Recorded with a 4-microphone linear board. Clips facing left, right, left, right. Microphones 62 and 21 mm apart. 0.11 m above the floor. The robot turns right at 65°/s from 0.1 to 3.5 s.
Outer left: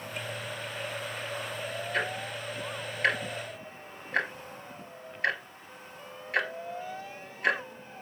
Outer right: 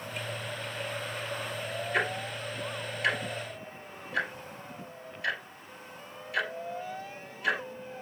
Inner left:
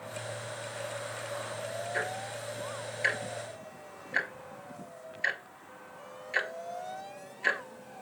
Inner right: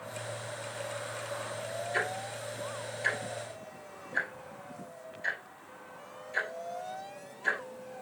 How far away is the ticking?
About 2.0 m.